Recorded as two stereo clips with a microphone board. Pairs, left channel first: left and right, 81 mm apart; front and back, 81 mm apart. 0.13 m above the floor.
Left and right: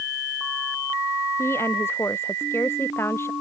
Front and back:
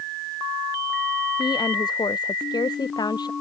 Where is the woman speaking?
30° left.